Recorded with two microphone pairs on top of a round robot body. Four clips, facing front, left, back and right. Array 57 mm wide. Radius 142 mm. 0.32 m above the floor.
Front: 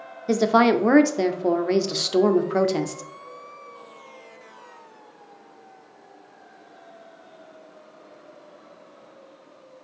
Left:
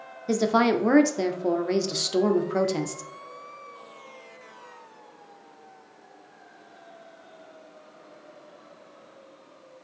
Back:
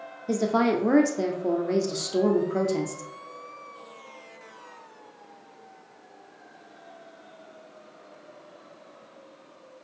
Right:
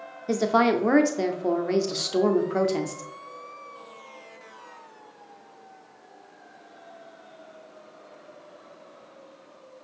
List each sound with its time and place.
0.3 s a woman speaking: 10° right, 0.9 m